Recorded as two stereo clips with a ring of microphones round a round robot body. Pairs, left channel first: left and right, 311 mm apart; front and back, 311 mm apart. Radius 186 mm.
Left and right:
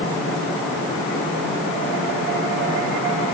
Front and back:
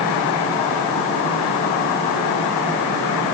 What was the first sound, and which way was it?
Only background noise.